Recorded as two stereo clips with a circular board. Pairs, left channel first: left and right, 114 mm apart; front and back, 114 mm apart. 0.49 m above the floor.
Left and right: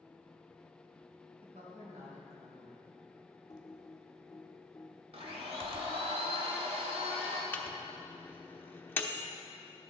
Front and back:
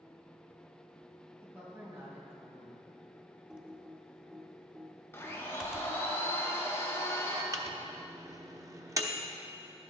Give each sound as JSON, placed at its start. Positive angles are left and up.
{"t": 1.4, "sound": "a woman speaking", "azimuth_deg": -110, "distance_m": 3.5}
{"t": 3.5, "sound": "typing on a keyboard", "azimuth_deg": 105, "distance_m": 0.9}
{"t": 5.1, "sound": "a blender", "azimuth_deg": -70, "distance_m": 1.7}
{"t": 7.5, "sound": "a microwave", "azimuth_deg": 150, "distance_m": 0.7}